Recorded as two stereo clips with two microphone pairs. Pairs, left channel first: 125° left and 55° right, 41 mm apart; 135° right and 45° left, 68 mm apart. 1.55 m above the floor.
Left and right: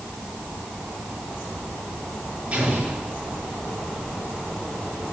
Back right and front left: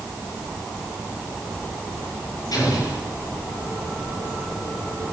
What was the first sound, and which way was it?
An explosion, 115° right.